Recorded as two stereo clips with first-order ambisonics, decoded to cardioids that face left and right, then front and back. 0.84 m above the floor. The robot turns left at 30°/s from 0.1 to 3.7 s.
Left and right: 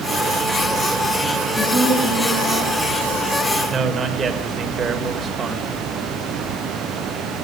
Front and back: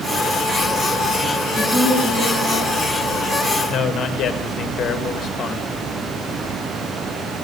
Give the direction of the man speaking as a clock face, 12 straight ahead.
1 o'clock.